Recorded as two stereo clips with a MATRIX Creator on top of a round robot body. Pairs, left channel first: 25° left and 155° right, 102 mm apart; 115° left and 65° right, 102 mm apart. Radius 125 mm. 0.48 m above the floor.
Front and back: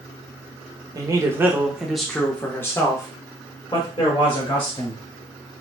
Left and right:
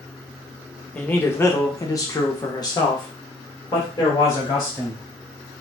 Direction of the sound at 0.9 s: Straight behind.